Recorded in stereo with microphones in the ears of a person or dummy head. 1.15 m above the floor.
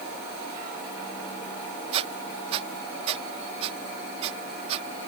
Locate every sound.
1.9 s a squeak: 35° right (ahead or behind)